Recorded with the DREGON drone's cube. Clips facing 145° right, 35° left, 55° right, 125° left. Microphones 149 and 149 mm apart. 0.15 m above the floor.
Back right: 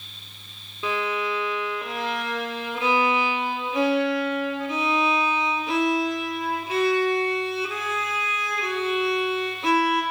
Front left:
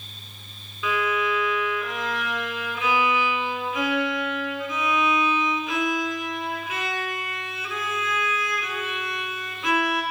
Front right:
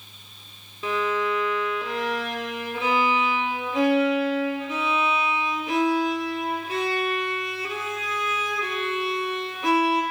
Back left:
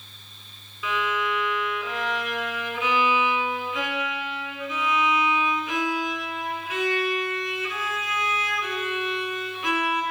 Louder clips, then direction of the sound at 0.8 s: Front left 1 dB, front right 3 dB; 100° right.